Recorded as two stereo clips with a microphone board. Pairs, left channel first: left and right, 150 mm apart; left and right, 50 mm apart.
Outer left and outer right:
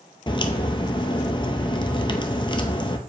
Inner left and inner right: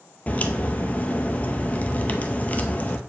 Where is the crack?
35° left (ahead or behind), 0.7 m.